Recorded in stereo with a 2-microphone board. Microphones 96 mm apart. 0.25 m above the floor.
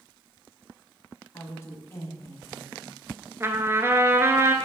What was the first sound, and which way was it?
A woman speaking, 30° left (ahead or behind).